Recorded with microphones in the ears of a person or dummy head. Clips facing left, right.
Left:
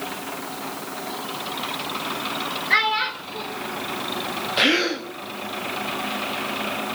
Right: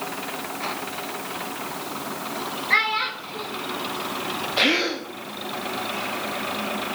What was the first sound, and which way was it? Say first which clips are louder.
A child speaking: left 3 dB; 5° left (ahead or behind).